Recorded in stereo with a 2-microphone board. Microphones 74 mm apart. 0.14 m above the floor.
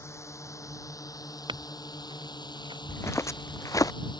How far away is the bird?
No bird in this recording.